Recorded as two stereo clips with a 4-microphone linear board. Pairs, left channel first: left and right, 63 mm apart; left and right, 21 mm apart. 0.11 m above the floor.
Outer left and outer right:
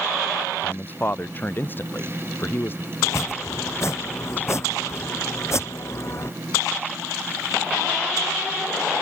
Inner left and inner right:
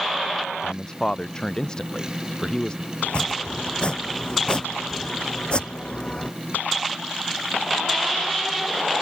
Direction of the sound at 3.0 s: 45° left (ahead or behind).